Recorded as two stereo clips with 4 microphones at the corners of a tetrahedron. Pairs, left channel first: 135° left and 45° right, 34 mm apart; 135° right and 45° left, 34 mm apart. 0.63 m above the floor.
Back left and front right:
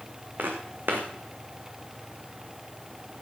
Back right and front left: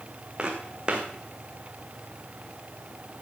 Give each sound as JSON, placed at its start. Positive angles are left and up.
{"t": 0.4, "sound": "footsteps", "azimuth_deg": -20, "distance_m": 2.5}